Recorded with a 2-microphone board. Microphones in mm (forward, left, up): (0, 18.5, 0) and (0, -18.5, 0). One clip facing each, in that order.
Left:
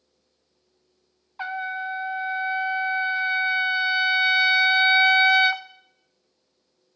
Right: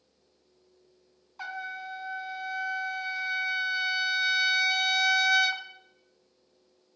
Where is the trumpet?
30° left (ahead or behind), 0.6 m.